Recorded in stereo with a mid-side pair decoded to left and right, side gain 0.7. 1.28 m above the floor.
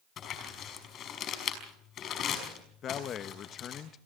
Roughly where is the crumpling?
Ahead left.